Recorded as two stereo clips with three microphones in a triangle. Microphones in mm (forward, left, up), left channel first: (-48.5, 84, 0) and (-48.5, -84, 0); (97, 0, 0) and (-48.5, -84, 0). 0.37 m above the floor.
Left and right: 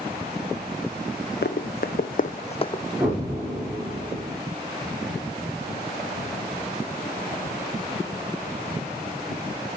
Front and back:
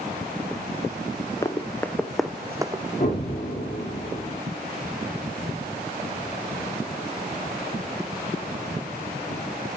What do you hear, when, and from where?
1.4 s running footsteps: 100° left, 1.2 m; by 2.8 s 155° left, 0.7 m
3.0 s an explosion: 5° right, 3.5 m